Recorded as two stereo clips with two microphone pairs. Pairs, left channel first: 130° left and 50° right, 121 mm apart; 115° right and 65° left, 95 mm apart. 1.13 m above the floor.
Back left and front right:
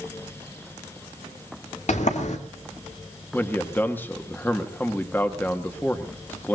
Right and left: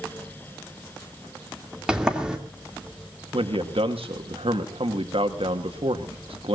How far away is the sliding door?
About 2.5 m.